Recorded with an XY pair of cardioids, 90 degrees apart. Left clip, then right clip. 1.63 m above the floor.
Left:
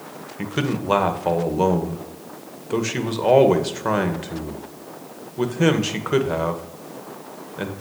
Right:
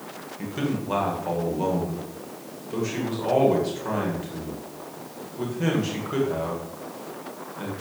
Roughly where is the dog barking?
I don't hear a dog barking.